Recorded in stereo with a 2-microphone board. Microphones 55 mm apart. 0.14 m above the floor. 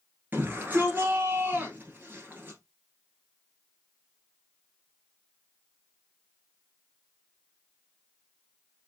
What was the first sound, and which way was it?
A shout, 35° right (ahead or behind).